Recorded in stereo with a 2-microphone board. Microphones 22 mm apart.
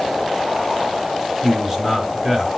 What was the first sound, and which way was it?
A man speaking, 20° right (ahead or behind).